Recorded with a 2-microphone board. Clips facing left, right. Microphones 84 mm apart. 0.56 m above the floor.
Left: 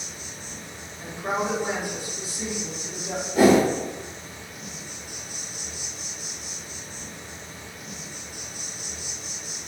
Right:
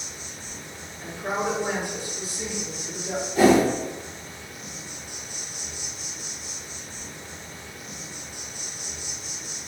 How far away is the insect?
About 0.9 m.